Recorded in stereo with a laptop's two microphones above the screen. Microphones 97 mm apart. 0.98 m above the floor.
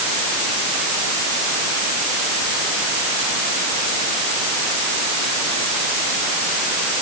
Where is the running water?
No running water in this recording.